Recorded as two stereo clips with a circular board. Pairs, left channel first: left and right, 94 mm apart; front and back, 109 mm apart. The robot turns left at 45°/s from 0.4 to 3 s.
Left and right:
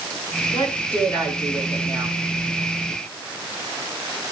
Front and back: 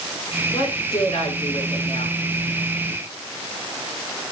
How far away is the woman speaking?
About 7.5 m.